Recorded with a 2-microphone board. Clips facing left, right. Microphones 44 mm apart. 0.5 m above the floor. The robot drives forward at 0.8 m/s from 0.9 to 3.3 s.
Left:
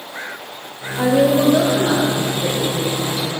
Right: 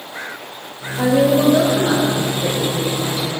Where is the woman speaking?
15° left (ahead or behind), 1.6 m; by 3.4 s 5° left (ahead or behind), 3.5 m.